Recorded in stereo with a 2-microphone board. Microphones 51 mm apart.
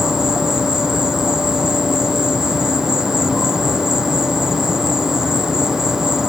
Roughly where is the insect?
Centre.